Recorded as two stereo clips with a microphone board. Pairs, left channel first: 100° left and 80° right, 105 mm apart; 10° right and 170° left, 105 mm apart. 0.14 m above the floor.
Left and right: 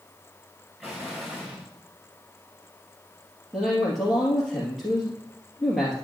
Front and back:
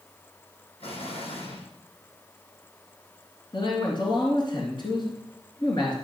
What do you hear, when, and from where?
0.8 s an explosion: 5° left, 3.5 m
3.5 s a man speaking: 15° left, 3 m